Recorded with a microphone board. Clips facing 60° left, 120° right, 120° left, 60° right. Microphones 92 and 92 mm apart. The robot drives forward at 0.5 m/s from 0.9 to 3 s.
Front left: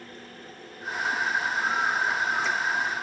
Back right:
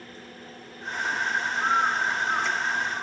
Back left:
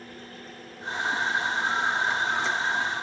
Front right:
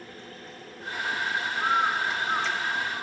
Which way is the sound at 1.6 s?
75° right.